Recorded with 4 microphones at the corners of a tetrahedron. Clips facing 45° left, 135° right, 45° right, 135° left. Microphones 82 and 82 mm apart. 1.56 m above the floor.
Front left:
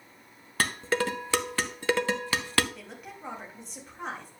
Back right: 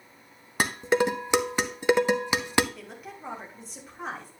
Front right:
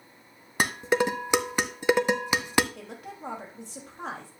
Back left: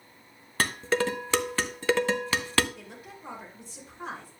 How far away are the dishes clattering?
About 0.6 m.